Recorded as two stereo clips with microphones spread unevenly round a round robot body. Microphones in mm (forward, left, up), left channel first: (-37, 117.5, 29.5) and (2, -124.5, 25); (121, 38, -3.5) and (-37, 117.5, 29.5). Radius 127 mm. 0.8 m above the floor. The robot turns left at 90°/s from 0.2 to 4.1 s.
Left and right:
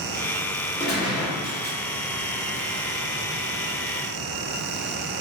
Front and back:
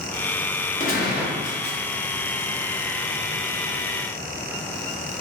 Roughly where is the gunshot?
Ahead.